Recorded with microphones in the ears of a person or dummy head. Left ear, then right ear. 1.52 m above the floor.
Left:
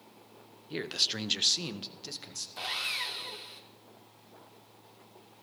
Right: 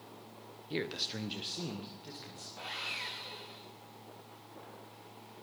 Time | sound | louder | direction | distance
0.7 | a man speaking | left 6 dB | 5° right (ahead or behind) | 0.9 m
2.6 | sawing | left 6 dB | 70° left (ahead or behind) | 2.5 m